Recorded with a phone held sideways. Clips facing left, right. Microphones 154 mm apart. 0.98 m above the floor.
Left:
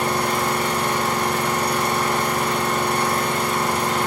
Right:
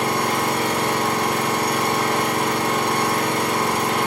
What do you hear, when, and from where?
0.0 s an engine running: 60° right (ahead or behind), 1.1 m